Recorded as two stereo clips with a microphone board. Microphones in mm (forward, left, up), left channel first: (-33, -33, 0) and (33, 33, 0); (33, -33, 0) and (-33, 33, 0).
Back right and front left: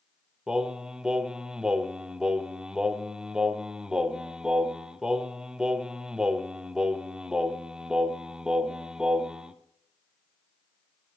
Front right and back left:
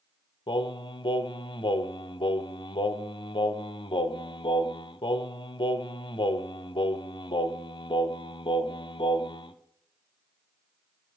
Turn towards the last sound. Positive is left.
turn(degrees=-35)